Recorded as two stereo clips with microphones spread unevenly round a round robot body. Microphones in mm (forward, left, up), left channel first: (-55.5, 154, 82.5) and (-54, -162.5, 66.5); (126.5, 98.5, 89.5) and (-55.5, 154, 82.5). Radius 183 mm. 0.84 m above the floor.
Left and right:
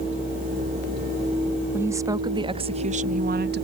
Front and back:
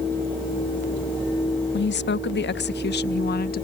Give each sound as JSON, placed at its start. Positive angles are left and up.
{"t": 1.7, "sound": "a woman speaking", "azimuth_deg": -10}